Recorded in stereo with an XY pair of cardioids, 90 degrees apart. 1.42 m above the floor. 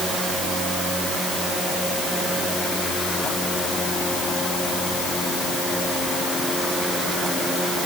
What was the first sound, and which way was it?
Only background noise.